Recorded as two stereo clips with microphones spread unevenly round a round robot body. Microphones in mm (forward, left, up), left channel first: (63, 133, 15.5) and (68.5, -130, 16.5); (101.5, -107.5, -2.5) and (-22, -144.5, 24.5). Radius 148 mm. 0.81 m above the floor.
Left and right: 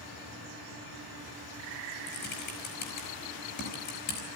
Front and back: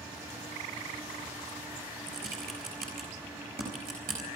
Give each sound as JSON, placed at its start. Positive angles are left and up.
{"t": 2.1, "sound": "typing on a keyboard", "azimuth_deg": 150, "distance_m": 5.0}